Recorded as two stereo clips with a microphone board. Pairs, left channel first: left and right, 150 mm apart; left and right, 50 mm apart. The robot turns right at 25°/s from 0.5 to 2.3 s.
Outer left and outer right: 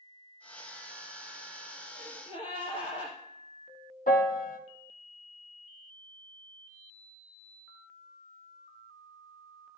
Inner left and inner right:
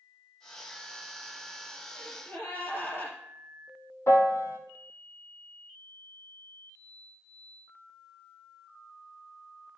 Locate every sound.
1.9 s a gasp: 30° left (ahead or behind), 3 m; by 3.1 s 40° left (ahead or behind), 3 m
4.1 s a piano: 75° left (ahead or behind), 0.9 m